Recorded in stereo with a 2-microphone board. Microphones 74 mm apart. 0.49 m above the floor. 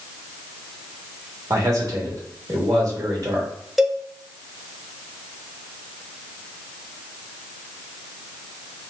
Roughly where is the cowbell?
Centre.